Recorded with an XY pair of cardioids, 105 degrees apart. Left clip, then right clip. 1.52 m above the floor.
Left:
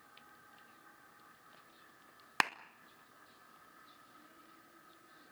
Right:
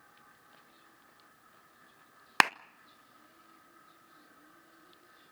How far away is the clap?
About 0.6 m.